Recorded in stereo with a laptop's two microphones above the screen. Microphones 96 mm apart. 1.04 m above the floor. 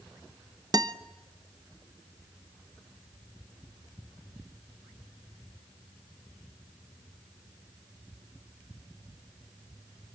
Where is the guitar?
40° right (ahead or behind), 0.6 m.